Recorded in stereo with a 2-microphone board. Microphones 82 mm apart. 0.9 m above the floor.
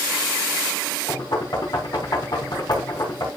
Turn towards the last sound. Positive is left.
turn(degrees=60)  # may be behind; listen again after turning